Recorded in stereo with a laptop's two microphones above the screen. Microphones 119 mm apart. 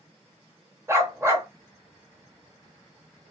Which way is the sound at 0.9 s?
20° right (ahead or behind).